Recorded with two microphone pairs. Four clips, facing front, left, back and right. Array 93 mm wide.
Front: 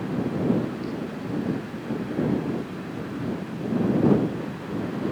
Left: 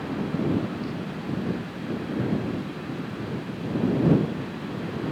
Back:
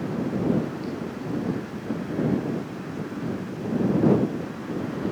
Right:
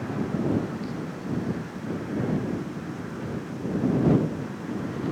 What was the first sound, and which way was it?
Only background noise.